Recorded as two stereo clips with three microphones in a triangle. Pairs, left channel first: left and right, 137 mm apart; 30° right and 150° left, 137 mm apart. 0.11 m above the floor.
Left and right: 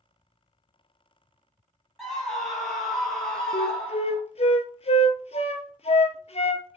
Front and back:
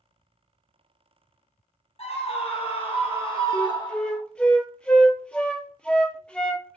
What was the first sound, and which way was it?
A scream, straight ahead.